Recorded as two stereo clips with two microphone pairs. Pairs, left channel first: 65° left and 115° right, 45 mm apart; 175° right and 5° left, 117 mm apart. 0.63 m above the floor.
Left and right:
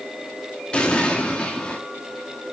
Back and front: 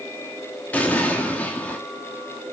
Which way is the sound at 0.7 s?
115° left.